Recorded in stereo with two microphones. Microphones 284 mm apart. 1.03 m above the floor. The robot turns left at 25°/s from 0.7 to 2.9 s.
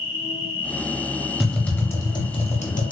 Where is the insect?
10° right (ahead or behind), 0.9 m; by 2.9 s 20° right (ahead or behind), 0.9 m.